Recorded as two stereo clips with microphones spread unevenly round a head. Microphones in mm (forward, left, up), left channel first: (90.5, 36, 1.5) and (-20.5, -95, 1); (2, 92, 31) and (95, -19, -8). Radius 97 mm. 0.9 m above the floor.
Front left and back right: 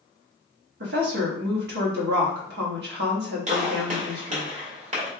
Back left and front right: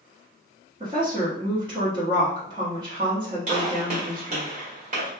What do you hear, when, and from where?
0.8 s a woman speaking: 110° right, 1.3 m
3.5 s a gunshot: 85° right, 2 m